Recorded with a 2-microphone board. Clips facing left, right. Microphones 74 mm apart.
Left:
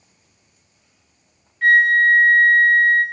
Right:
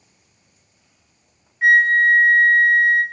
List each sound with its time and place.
1.6 s a flute: 15° right (ahead or behind), 0.5 m